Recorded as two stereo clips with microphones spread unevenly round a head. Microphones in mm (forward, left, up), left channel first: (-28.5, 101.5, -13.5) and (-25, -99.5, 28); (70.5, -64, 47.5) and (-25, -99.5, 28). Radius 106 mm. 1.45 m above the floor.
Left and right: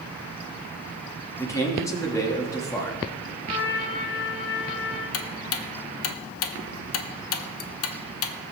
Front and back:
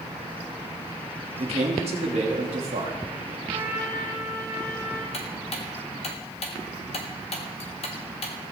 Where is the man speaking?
165° left, 3 m.